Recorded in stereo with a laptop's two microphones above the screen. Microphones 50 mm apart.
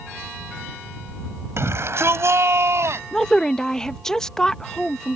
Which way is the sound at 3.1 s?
15° left (ahead or behind).